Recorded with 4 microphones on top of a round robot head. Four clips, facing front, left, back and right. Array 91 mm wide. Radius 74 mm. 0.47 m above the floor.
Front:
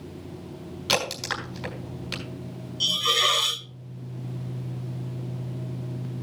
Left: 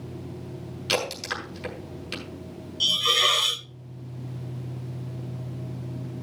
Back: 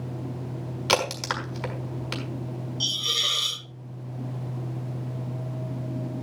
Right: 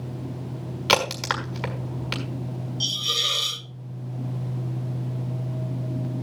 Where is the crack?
110° right, 5 m.